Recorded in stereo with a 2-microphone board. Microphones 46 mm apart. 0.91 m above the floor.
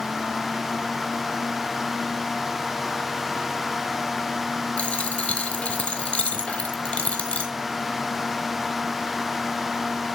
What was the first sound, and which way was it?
A dropped coin, 25° left (ahead or behind).